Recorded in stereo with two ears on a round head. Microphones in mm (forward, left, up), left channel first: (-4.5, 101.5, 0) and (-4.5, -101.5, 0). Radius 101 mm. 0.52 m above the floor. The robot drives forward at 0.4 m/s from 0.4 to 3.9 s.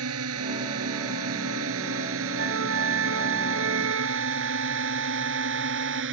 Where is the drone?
75° right (ahead or behind); by 6.1 s 60° right (ahead or behind).